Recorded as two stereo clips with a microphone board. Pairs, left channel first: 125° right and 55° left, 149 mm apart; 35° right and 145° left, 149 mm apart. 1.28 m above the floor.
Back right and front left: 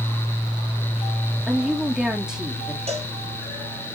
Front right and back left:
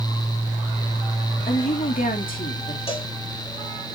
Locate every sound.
1.5 s a woman speaking: 30° right, 3 m
2.9 s a cowbell: 10° left, 5.5 m